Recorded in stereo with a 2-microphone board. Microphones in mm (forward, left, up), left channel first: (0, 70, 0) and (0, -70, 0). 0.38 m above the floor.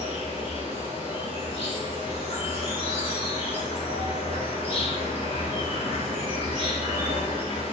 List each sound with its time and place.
0.0 s an insect: 50° left (ahead or behind), 0.8 m